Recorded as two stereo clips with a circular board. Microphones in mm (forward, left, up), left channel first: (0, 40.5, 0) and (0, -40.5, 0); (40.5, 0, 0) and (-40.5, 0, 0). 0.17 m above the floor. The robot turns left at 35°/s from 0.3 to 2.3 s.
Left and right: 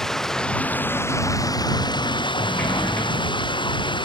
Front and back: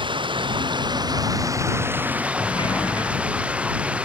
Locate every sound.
0.0 s running water: 175° left; by 4.1 s 105° left
2.4 s a sliding door: 20° left